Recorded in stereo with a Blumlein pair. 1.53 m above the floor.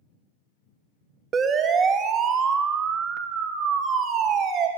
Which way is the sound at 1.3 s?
20° right.